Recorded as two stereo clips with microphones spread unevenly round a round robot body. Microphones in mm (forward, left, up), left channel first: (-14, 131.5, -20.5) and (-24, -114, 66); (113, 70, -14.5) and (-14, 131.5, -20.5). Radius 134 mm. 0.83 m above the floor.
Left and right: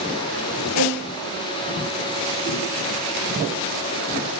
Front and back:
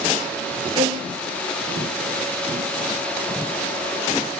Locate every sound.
0.8 s a violin: 100° left, 6 m